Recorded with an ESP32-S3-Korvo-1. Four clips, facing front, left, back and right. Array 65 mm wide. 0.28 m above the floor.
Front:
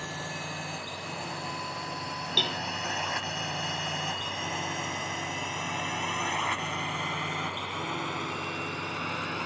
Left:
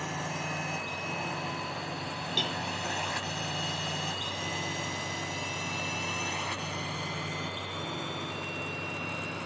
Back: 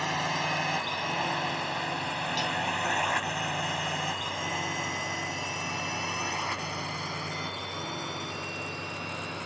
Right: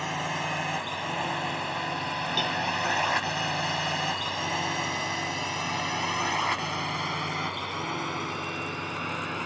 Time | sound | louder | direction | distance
0.0 | a drone | right 5 dB, back 7 dB | 140° right | ?
2.4 | a cowbell | right 4 dB, even | 5° right | ?